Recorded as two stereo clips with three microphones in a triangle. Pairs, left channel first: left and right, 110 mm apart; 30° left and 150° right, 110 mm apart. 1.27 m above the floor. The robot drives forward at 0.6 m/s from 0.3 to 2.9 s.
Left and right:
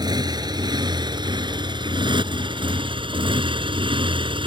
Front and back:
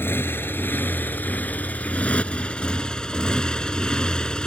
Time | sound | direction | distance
0.0 | a motorcycle | 40° right | ?